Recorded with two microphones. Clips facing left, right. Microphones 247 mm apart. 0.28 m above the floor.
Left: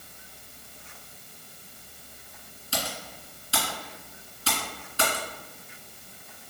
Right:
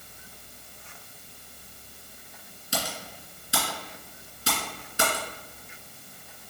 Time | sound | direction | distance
2.7 | typing on a keyboard | 20° right (ahead or behind) | 2.0 m